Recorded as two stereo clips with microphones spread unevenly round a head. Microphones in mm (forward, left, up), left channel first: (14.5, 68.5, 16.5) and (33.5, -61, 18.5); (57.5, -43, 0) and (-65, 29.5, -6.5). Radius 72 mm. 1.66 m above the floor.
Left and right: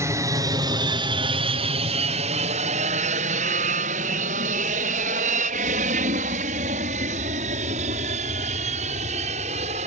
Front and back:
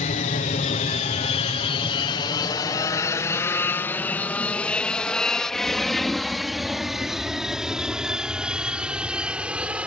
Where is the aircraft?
20° right; by 9.9 s 130° right.